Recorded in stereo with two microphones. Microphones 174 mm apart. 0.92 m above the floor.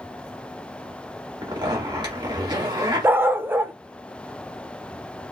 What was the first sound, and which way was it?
A zipper, 25° right (ahead or behind).